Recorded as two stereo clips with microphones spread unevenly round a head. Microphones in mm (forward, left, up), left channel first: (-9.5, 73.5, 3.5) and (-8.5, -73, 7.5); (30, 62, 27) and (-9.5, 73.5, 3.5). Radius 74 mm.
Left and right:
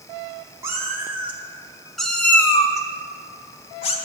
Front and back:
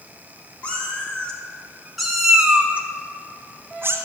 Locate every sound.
0.6 s a cat meowing: 20° right, 1.4 m; by 4.0 s 120° left, 1.1 m